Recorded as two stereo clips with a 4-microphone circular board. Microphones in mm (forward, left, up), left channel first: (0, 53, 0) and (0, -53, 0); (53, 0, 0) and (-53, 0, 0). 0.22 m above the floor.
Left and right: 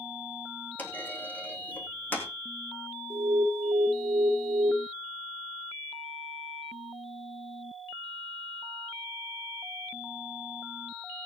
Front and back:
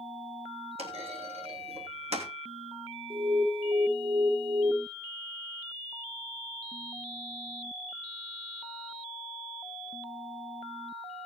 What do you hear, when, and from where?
0.8 s a clunk: 165° left, 3 m
3.1 s an alarm: 175° right, 1.9 m